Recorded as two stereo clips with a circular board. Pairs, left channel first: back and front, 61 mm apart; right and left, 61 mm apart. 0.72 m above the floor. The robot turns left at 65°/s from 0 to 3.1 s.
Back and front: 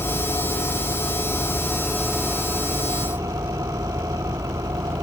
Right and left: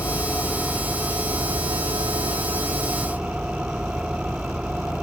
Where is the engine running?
140° right; by 5.0 s 15° left.